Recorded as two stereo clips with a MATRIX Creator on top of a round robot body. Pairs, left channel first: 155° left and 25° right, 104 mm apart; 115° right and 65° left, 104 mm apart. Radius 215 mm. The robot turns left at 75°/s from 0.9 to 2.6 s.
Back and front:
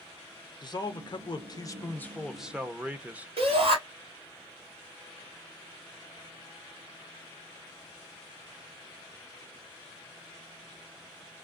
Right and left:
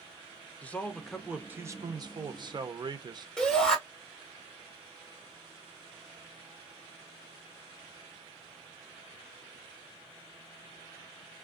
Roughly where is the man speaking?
Behind.